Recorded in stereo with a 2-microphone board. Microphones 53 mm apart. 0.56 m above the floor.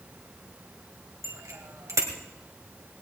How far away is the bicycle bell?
About 2.5 m.